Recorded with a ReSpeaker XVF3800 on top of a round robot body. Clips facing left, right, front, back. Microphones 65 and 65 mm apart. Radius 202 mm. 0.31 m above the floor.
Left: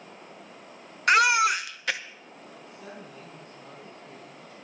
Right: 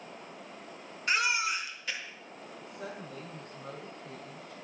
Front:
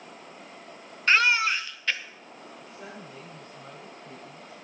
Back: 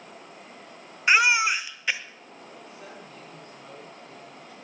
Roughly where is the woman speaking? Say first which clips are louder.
Right 3 dB, front 2 dB; right.